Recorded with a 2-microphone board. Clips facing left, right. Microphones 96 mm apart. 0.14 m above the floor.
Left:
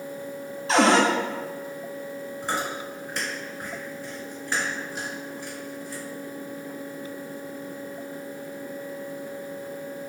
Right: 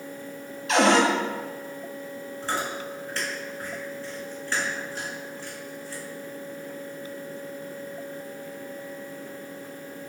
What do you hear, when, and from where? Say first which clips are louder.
0.7 s a cupboard door: left 1 dB; 35° left (ahead or behind), 0.8 m
2.4 s chewing: even; 15° left (ahead or behind), 1.6 m